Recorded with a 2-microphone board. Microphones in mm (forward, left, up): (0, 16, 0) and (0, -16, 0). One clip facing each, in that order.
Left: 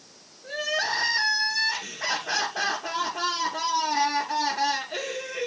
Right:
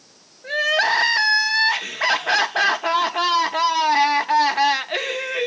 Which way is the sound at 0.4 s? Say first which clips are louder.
Right 8 dB; 60° right (ahead or behind).